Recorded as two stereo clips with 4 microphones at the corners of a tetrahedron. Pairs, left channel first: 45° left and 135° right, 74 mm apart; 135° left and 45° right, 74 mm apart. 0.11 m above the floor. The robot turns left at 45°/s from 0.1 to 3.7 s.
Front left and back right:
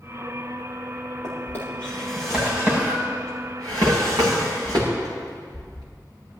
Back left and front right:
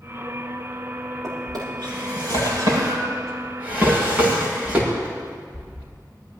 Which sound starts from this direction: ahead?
A drawer, at 1.2 s.